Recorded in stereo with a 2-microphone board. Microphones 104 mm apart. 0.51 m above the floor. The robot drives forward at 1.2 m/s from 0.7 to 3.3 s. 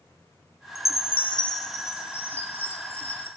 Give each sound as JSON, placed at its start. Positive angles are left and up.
{"t": 0.8, "sound": "a chime", "side_deg": 80, "distance_m": 0.7}